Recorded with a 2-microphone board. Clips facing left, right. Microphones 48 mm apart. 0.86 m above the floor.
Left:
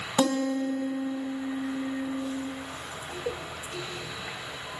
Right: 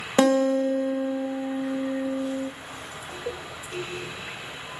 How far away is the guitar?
About 0.5 m.